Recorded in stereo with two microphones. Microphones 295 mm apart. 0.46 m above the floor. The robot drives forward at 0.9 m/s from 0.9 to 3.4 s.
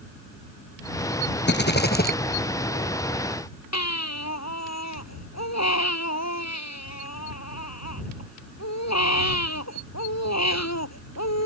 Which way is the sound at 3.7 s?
55° left (ahead or behind).